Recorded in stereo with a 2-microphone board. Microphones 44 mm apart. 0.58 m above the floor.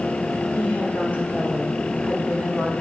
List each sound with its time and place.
0.6 s a woman speaking: 40° left (ahead or behind), 1.8 m